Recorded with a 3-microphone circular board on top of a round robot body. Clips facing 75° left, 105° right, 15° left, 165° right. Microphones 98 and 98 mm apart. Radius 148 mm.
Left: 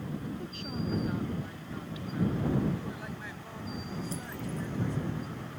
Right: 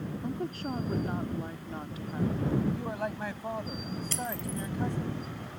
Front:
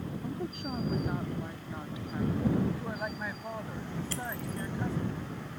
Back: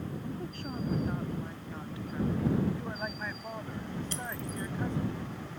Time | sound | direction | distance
0.2 | a woman speaking | 55° right | ?
2.7 | a man speaking | 70° right | ?
4.1 | breaking glass | 95° right | ?